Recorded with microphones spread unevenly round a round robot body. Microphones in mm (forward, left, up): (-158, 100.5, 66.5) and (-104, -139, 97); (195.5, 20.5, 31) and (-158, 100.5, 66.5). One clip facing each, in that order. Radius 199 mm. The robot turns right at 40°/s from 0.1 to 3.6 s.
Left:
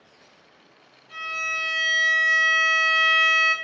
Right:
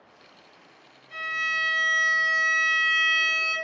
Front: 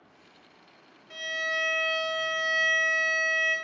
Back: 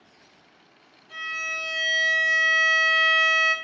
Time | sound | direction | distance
1.1 | a violin | 65° left | 0.6 m